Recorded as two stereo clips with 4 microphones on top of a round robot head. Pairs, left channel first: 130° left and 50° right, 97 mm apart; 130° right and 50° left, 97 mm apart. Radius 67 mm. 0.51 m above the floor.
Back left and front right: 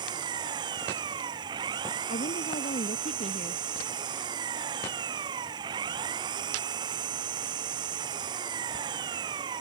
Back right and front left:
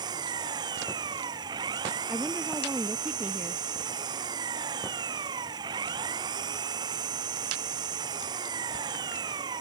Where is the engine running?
Straight ahead.